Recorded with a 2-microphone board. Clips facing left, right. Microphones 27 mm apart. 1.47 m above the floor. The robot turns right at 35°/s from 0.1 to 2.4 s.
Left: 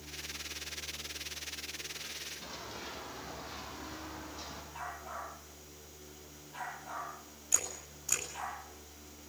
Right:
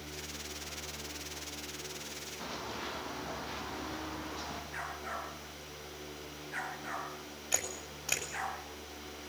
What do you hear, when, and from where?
2.4 s running footsteps: 75° right (ahead or behind), 9.5 m; by 4.6 s 80° right, 8 m
4.7 s a dog barking: 60° right (ahead or behind), 9.5 m
7.5 s a camera shutter: 40° right (ahead or behind), 7 m